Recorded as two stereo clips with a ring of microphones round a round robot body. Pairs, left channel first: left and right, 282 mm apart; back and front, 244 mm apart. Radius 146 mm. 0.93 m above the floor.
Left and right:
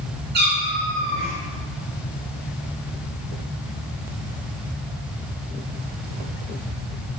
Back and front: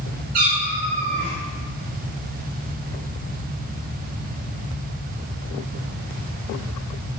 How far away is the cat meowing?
About 4.5 m.